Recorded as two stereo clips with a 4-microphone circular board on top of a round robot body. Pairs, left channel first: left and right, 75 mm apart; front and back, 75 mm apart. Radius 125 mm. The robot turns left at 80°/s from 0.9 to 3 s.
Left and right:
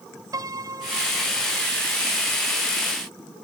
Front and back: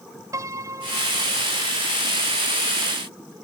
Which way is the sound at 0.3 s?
135° right.